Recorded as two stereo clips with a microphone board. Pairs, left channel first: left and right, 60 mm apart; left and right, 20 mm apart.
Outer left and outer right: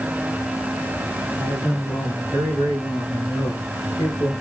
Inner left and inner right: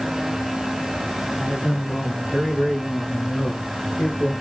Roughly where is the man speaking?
Left.